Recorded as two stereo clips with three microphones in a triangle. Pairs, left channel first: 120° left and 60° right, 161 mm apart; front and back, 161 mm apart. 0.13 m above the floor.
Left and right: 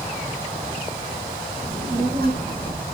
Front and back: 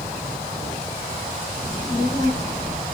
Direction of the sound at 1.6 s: 35° right.